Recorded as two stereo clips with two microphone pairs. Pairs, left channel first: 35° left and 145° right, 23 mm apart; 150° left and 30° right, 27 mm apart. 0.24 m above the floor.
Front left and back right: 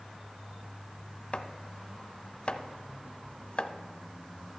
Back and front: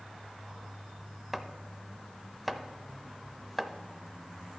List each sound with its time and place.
1.3 s chopping: 50° left, 0.7 m